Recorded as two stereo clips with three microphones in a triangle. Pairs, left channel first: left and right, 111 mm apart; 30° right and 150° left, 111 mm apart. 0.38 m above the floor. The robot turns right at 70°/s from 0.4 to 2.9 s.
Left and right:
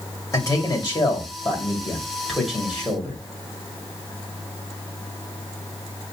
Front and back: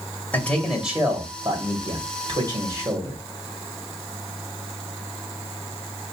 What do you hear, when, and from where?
0.3 s a man speaking: 40° left, 1.9 m; by 3.2 s 145° right, 1.9 m